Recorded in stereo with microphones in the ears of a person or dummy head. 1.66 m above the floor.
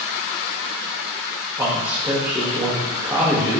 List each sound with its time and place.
1.6 s a man speaking: 5° right (ahead or behind), 0.5 m